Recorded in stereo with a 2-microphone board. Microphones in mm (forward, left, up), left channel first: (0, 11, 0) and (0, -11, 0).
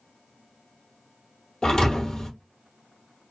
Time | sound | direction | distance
1.6 | a thud | 45° left (ahead or behind) | 1.7 m